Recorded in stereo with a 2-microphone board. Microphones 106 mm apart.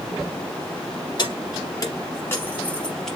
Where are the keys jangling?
45° left (ahead or behind), 1.7 m; by 3.2 s centre (ahead or behind), 1.1 m.